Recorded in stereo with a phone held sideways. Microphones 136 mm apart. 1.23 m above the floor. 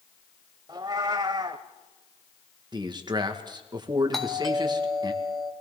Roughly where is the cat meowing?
Right.